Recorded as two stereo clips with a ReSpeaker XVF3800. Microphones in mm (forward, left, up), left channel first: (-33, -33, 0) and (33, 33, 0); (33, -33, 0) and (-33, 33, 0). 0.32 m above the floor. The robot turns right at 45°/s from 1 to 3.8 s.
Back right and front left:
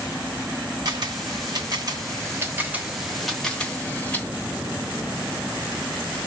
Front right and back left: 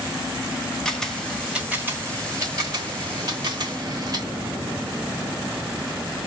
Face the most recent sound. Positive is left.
turn(degrees=160)